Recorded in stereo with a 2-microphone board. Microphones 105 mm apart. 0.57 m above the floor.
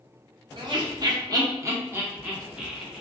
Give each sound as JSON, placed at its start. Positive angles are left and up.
{"t": 0.6, "sound": "laughter", "side_deg": -45, "distance_m": 0.8}